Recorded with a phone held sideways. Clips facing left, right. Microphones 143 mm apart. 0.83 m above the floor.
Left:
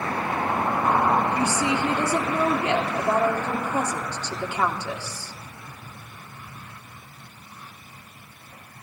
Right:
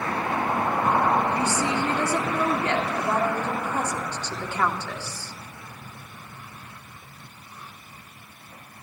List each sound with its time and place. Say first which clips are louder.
1.3 s a woman speaking: left 1 dB; 15° left (ahead or behind), 2.5 m